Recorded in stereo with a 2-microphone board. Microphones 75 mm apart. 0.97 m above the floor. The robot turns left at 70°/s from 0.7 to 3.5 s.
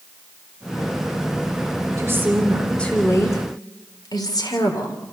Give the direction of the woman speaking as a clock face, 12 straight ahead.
5 o'clock.